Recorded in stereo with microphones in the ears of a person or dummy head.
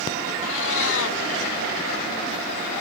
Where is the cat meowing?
70° left (ahead or behind).